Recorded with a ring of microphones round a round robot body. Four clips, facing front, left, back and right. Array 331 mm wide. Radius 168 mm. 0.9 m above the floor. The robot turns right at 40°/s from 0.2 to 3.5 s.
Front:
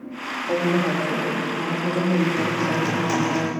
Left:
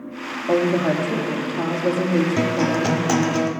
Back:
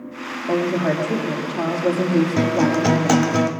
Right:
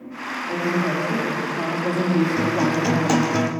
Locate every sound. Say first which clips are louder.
0.5 s a woman speaking: left 5 dB, back 2 dB; 135° left, 2 m; by 3.4 s 110° right, 2 m
2.4 s a guitar: left 1 dB, back 5 dB; 155° left, 1.1 m; by 3.5 s 160° right, 1.1 m